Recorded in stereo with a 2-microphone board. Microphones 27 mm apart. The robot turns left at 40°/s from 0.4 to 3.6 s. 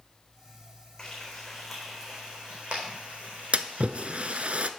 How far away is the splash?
About 0.5 m.